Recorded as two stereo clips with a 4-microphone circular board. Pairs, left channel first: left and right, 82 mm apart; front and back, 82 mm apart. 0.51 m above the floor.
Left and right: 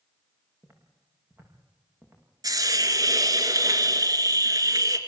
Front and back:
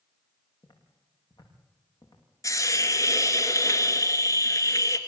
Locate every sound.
0.6 s footsteps: 25° right, 7 m
2.4 s a hiss: 45° right, 2.5 m